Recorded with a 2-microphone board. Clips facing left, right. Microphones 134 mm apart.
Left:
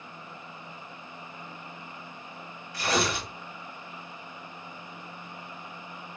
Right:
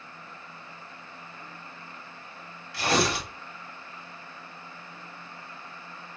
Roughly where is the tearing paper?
Right.